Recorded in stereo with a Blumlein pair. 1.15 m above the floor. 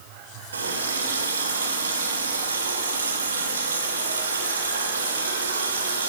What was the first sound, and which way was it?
A running tap, 70° right.